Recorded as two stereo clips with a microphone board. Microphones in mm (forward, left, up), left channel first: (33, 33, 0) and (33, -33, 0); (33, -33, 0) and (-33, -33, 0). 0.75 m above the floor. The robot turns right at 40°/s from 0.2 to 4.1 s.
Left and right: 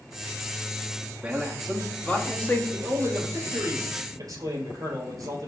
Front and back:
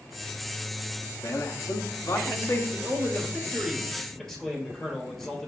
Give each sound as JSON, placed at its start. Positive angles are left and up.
{"t": 1.2, "sound": "a man speaking", "azimuth_deg": -20, "distance_m": 0.9}
{"t": 2.7, "sound": "a man speaking", "azimuth_deg": -145, "distance_m": 2.5}